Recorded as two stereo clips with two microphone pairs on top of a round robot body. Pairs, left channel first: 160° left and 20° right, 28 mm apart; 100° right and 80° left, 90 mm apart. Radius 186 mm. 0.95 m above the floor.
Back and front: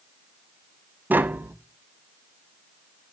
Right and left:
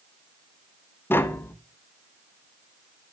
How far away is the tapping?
About 0.6 m.